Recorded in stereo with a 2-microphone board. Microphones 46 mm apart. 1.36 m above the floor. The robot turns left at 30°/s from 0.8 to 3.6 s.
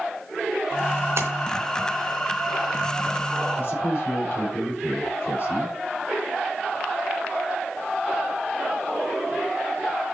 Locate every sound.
1.2 s a splash: 65° right (ahead or behind), 3 m; by 1.3 s 60° right (ahead or behind), 3 m
3.6 s a man speaking: 55° left (ahead or behind), 4.5 m